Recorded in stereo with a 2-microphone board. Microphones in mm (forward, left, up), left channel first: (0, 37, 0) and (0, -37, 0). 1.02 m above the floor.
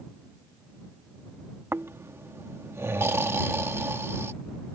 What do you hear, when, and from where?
1.7 s snoring: 35° right (ahead or behind)